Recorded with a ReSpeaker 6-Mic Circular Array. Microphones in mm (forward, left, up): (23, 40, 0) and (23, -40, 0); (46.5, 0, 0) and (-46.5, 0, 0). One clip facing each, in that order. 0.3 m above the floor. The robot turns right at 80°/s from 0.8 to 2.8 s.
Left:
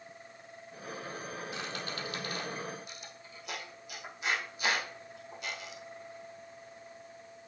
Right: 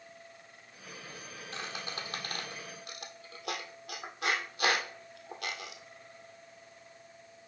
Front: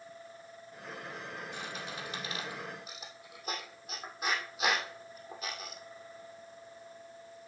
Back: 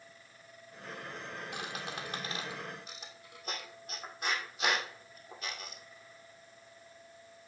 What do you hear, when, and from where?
1.5 s a squeak: 170° left, 2 m; by 5.8 s 85° right, 2 m